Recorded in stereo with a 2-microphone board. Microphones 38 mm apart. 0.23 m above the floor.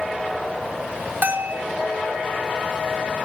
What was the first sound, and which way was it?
A bell, 60° right (ahead or behind).